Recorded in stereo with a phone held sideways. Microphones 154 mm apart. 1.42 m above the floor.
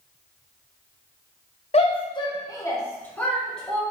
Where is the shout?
45° left (ahead or behind), 1.0 m; by 3.8 s centre (ahead or behind), 1.6 m.